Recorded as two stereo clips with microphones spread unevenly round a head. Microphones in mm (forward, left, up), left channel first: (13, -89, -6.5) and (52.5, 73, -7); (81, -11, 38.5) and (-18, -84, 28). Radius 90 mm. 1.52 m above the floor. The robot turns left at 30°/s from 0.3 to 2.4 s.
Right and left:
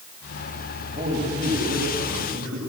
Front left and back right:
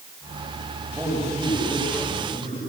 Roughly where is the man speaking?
Behind left.